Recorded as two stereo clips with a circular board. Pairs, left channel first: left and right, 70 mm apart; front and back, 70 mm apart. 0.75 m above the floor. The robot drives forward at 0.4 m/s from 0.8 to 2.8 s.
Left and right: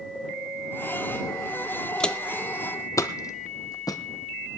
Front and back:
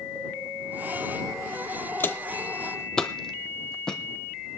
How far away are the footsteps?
About 0.8 m.